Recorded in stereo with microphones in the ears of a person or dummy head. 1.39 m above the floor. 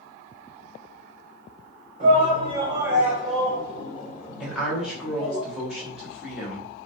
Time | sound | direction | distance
2.0 | a shout | 40° right (ahead or behind) | 1.0 m
4.4 | a woman speaking | centre (ahead or behind) | 0.7 m